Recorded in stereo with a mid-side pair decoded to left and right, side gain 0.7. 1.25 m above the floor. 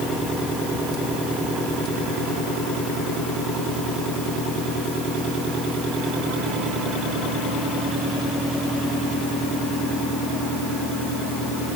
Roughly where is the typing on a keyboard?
No typing on a keyboard in this recording.